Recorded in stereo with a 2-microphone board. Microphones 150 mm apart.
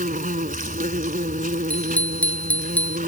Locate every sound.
0.0 s an insect: 80° right
1.7 s a bicycle bell: 10° left (ahead or behind)